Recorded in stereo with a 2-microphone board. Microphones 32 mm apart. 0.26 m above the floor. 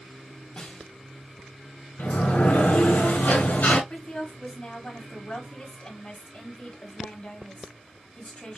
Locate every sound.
0.6 s a snare drum: 35° left (ahead or behind), 1.7 m
2.0 s a sliding door: 70° left (ahead or behind), 1.5 m
3.9 s a woman speaking: 40° left (ahead or behind), 1.5 m